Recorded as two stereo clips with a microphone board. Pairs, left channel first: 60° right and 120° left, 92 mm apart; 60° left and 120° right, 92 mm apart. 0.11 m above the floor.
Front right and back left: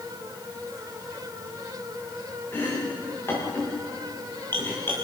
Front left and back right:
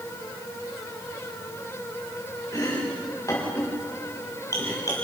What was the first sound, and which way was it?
Chopping, 5° left.